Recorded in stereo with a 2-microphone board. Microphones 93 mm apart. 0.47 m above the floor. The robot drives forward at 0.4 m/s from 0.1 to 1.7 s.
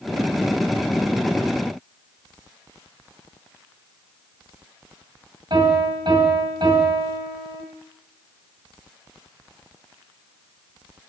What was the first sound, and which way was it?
A piano, 50° right (ahead or behind).